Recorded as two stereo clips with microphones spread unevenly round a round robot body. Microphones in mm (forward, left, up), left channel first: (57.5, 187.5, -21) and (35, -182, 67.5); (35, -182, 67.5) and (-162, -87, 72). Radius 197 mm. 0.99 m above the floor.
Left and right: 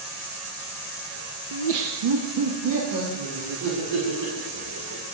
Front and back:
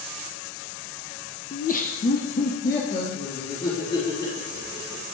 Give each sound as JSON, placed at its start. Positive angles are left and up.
{"t": 1.5, "sound": "laughter", "azimuth_deg": -90, "distance_m": 0.6}